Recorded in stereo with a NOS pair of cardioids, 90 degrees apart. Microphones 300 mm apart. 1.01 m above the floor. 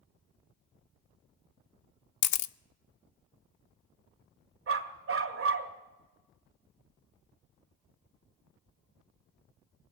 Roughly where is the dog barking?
Ahead right.